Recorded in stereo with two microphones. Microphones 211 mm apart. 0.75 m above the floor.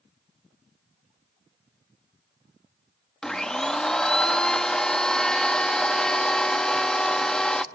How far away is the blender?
About 0.8 m.